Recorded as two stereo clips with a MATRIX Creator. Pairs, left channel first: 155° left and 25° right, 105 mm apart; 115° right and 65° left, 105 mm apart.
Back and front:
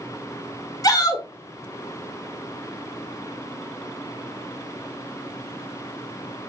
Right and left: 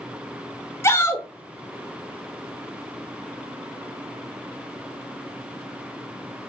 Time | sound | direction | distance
0.8 | a shout | 165° right | 1.1 m